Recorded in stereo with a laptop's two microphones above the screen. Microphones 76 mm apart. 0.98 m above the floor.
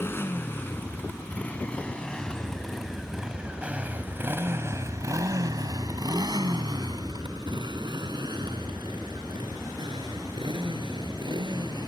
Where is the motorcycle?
35° left (ahead or behind); by 11.9 s 85° right.